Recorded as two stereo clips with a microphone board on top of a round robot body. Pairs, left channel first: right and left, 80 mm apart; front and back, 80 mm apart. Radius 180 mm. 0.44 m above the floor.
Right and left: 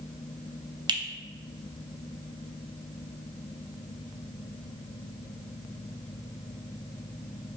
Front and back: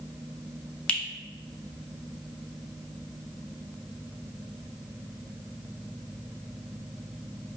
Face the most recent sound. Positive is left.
turn(degrees=75)